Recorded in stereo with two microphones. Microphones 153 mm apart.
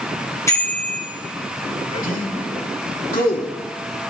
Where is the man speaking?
65° left (ahead or behind), 4.5 m.